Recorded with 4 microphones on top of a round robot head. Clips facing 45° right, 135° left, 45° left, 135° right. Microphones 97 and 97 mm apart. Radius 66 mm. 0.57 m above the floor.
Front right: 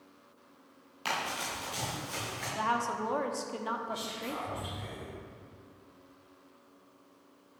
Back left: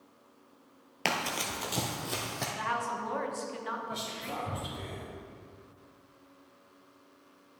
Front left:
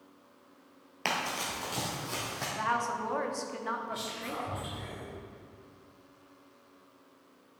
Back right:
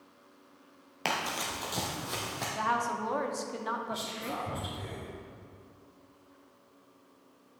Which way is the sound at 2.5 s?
65° right.